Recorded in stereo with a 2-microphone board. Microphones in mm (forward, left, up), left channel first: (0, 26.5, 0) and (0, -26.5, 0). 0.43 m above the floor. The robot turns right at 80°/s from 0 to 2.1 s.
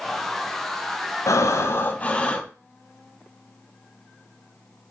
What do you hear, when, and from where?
1.3 s breathing: 90° left, 0.5 m; by 2.5 s 155° left, 0.5 m